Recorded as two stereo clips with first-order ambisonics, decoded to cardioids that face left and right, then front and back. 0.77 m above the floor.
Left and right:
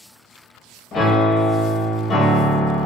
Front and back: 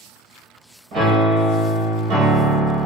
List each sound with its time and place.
0.9 s a piano: 140° left, 0.8 m